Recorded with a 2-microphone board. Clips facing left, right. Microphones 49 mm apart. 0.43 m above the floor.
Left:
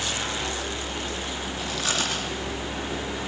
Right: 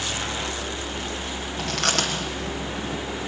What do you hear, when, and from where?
1.6 s chewing: 55° right (ahead or behind), 6 m